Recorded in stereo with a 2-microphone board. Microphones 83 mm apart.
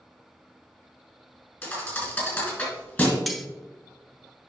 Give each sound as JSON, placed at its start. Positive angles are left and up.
{"t": 1.6, "sound": "a thud", "side_deg": 25, "distance_m": 2.5}
{"t": 3.3, "sound": "cutlery clinking", "side_deg": 0, "distance_m": 0.7}